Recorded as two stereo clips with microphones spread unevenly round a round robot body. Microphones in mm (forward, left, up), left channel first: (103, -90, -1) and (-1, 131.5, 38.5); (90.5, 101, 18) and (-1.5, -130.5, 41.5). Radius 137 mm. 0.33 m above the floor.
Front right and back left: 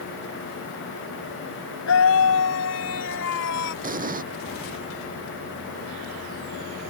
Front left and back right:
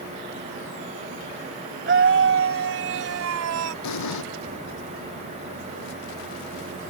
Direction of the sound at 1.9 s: 75° right.